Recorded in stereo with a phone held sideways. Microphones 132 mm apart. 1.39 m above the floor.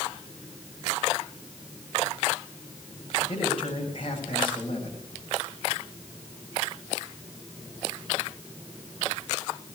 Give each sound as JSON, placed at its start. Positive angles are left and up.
{"t": 3.3, "sound": "a man speaking", "side_deg": 40, "distance_m": 7.0}